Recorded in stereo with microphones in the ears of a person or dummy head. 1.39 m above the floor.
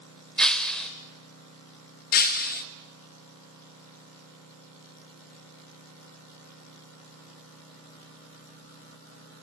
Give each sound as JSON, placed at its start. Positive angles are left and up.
{"t": 0.4, "sound": "breaking glass", "side_deg": 5, "distance_m": 1.6}
{"t": 2.1, "sound": "breaking glass", "side_deg": 45, "distance_m": 0.9}